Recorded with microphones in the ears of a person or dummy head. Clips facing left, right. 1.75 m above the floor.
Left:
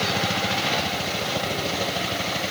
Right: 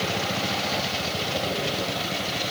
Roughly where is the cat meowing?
I don't hear a cat meowing.